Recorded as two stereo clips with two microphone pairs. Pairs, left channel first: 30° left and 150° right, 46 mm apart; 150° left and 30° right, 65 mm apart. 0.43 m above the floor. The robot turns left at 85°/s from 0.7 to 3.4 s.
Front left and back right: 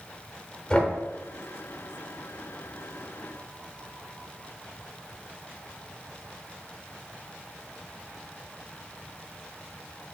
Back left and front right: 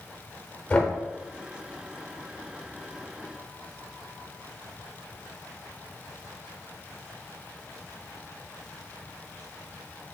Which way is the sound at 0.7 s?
90° left.